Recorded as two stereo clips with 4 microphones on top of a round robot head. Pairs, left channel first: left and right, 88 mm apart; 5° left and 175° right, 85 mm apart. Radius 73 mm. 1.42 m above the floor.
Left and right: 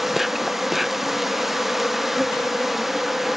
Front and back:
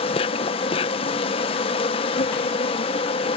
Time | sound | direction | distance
0.0 | an insect | straight ahead | ?